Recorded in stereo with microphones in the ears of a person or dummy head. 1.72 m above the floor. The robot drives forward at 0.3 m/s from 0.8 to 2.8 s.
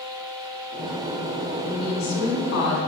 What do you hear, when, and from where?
1.6 s a woman speaking: 80° left, 2.5 m; by 2.8 s 70° left (ahead or behind), 2.5 m